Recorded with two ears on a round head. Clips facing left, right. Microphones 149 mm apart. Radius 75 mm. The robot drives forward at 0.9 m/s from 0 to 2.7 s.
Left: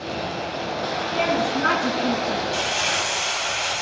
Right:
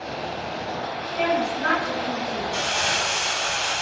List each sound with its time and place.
1.1 s a woman speaking: 60° left (ahead or behind), 7 m; by 2.4 s 70° left (ahead or behind), 6.5 m
2.5 s crumpling: 15° left (ahead or behind), 8.5 m